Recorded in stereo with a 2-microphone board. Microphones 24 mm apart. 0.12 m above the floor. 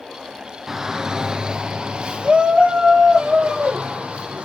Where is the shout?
20° right (ahead or behind), 1.3 m; by 4.5 s 65° right (ahead or behind), 4.5 m.